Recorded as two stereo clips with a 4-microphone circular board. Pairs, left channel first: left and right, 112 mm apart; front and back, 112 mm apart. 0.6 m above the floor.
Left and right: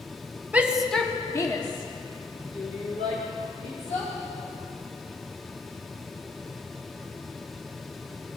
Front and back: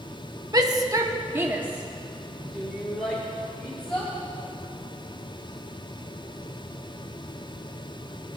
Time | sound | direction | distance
0.5 | a shout | 160° right | 1.2 m